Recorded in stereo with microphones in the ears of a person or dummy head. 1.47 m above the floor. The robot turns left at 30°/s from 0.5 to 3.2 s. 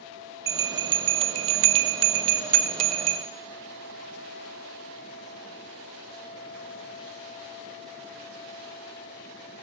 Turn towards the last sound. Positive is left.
turn(degrees=-35)  # may be behind; listen again after turning